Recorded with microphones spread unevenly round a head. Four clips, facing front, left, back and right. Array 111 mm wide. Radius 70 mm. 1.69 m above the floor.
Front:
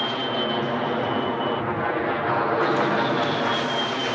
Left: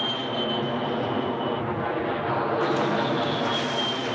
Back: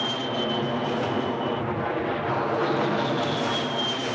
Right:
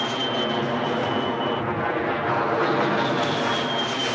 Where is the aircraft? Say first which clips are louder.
Right 3 dB, front 2 dB; 45° right; by 4.2 s 30° right.